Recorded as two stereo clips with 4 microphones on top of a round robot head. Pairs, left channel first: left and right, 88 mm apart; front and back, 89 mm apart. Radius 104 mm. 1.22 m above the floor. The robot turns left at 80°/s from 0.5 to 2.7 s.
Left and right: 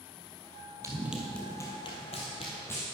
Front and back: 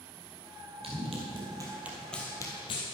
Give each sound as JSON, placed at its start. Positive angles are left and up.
{"t": 0.8, "sound": "running footsteps", "azimuth_deg": -140, "distance_m": 1.8}